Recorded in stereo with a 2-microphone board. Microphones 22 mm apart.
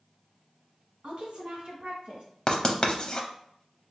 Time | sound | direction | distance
1.0 | a woman speaking | 60° right (ahead or behind) | 2 m
2.5 | writing | 35° left (ahead or behind) | 0.6 m